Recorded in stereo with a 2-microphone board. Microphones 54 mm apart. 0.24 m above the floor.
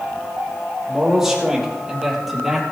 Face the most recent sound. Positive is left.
turn(degrees=-5)  # may be behind; listen again after turning